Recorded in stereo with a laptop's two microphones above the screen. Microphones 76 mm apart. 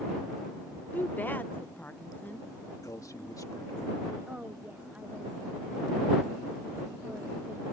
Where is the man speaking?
50° left (ahead or behind).